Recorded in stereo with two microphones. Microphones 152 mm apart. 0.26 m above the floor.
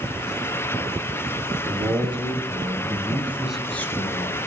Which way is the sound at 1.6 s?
35° right (ahead or behind).